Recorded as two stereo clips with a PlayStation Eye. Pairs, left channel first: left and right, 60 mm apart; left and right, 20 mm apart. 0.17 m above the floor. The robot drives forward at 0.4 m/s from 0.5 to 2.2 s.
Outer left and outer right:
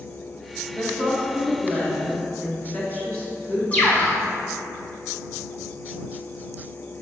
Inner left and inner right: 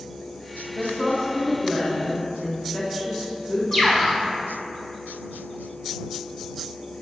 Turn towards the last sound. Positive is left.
turn(degrees=25)  # may be behind; listen again after turning